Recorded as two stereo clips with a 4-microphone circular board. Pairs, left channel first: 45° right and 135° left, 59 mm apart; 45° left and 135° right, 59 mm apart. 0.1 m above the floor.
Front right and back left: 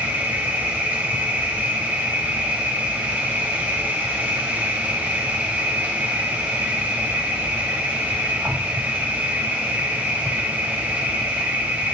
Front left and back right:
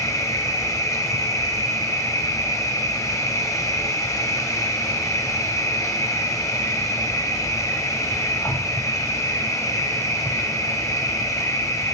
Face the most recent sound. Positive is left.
turn(degrees=70)